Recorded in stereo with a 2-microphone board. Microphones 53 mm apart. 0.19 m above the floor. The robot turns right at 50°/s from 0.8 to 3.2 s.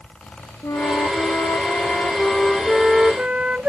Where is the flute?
80° left; by 3.7 s 160° right.